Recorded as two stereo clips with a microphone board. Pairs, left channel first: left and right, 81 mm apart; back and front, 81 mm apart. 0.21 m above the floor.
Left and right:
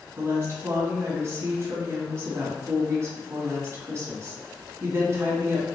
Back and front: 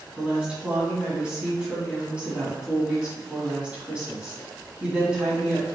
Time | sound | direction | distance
0.2 | a woman speaking | 70° right | 1.6 m